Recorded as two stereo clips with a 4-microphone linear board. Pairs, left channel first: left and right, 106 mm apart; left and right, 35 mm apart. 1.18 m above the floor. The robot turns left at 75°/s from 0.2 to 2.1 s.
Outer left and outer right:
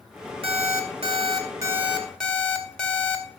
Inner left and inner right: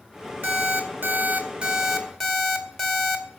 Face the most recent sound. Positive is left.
turn(degrees=175)